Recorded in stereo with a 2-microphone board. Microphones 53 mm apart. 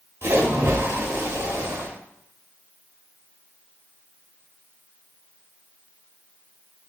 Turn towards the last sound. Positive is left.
turn(degrees=-55)  # may be behind; listen again after turning